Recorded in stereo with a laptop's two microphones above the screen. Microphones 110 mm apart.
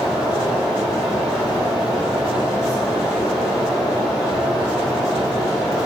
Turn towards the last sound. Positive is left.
turn(degrees=0)  # may be behind; listen again after turning